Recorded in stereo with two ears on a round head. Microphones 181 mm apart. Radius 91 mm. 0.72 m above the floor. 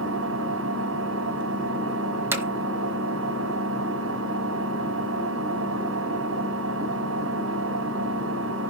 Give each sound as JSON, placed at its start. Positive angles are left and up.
{"t": 0.0, "sound": "an engine running", "side_deg": -70, "distance_m": 5.0}
{"t": 2.3, "sound": "hammering", "side_deg": -10, "distance_m": 1.4}